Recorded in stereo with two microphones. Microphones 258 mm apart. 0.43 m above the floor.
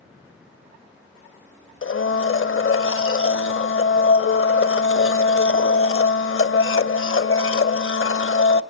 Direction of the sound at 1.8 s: 50° left (ahead or behind).